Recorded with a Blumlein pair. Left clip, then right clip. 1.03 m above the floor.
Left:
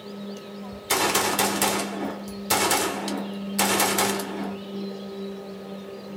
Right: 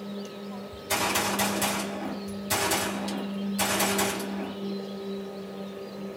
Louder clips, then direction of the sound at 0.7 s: Left 4 dB; 65° left.